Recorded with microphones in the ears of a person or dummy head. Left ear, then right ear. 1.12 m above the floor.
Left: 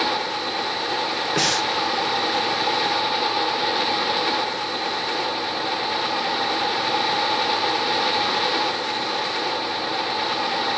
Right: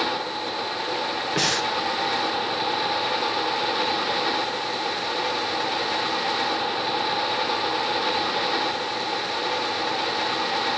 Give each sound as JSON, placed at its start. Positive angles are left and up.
{"t": 1.4, "sound": "breathing", "side_deg": 5, "distance_m": 1.0}